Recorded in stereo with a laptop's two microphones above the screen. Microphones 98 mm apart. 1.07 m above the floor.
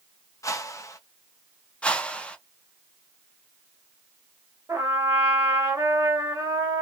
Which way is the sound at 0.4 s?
30° left (ahead or behind).